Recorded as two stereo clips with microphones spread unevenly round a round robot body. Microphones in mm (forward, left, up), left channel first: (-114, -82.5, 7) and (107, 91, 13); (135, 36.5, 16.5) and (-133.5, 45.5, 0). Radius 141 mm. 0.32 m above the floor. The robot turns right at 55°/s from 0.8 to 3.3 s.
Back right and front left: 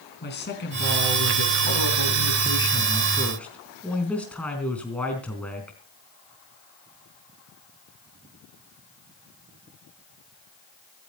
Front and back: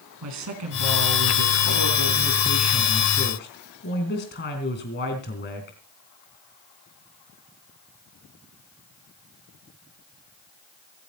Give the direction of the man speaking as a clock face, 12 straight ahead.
6 o'clock.